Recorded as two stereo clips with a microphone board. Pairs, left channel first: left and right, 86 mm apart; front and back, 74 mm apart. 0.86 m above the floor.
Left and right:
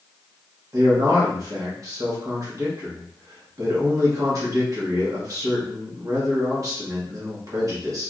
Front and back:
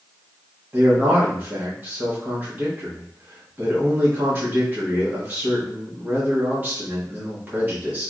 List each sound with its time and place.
0.7 s a man speaking: 125° right, 1.1 m